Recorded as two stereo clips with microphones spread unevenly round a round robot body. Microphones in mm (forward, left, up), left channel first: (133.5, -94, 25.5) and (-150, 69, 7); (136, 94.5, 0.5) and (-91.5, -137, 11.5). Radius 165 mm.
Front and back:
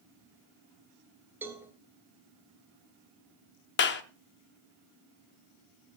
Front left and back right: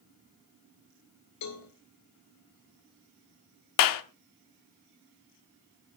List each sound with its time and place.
1.4 s a cowbell: 70° left, 1.6 m
3.8 s a clap: 30° left, 0.8 m